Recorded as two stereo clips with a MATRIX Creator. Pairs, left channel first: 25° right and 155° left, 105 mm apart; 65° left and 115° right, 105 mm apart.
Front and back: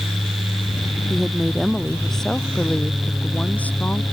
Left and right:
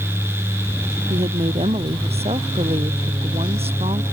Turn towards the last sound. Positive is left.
turn(degrees=-95)